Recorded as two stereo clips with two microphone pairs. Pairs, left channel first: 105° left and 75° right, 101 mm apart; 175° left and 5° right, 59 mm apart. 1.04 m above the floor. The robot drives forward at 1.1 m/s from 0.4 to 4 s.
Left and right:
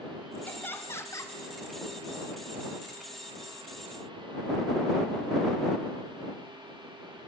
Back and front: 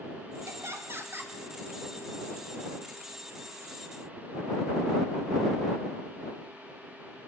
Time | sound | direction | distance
0.5 | laughter | 35° left | 3 m